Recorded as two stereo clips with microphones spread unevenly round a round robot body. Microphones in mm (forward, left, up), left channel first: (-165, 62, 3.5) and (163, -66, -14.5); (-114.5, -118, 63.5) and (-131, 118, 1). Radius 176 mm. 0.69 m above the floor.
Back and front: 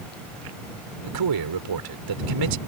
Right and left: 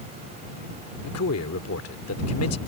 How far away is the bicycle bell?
No bicycle bell in this recording.